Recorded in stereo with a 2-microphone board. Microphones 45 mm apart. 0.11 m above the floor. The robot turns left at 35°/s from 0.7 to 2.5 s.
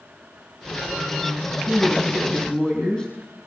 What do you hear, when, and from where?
1.7 s a woman speaking: 10° right (ahead or behind), 4.5 m; by 3.1 s 20° left (ahead or behind), 4.5 m